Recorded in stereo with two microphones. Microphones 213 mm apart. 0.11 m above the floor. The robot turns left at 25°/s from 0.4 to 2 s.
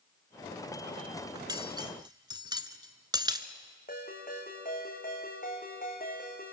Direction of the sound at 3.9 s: 45° left (ahead or behind).